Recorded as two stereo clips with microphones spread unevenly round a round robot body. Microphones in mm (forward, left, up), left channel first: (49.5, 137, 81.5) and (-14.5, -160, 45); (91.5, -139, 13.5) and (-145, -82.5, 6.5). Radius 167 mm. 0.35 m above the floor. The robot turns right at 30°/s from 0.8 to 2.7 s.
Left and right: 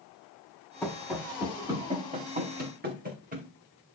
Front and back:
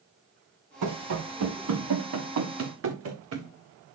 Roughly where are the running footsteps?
Behind.